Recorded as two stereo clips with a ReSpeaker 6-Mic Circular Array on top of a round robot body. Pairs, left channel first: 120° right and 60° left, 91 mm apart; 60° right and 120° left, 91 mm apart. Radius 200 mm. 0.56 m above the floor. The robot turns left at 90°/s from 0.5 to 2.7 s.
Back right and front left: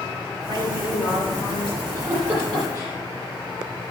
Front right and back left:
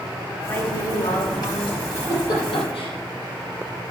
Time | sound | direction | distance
0.5 | a woman speaking | 10° left | 5.5 m
1.9 | a giggle | 15° left | 5 m